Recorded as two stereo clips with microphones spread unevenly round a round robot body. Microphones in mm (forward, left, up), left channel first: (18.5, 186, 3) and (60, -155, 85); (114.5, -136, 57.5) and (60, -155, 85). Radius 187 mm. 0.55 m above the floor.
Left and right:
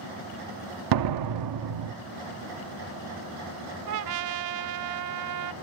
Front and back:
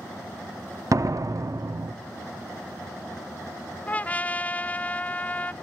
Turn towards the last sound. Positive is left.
turn(degrees=-60)